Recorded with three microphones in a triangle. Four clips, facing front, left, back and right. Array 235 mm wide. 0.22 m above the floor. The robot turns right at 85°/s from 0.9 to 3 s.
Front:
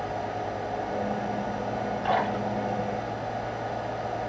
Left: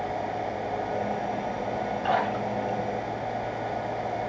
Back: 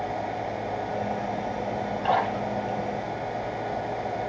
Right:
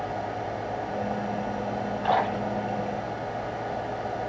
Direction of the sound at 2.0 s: 145° right.